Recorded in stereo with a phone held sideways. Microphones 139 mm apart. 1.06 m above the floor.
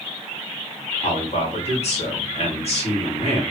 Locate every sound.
1.0 s a man speaking: 50° left (ahead or behind), 2 m